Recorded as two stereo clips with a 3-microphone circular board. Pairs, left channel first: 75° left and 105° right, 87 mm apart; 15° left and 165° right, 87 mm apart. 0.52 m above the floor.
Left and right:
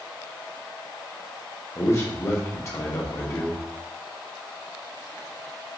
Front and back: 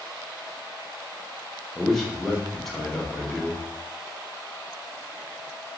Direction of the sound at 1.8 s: 100° left.